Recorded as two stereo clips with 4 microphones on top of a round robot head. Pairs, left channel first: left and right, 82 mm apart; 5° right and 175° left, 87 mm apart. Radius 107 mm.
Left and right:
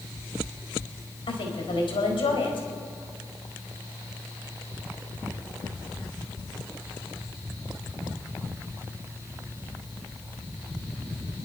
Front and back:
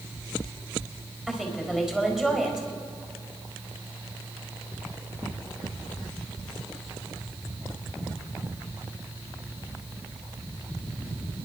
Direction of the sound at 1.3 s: 95° left.